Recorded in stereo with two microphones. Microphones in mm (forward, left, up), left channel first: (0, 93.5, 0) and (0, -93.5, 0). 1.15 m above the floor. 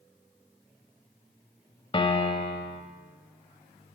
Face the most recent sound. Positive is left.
turn(degrees=30)  # may be behind; listen again after turning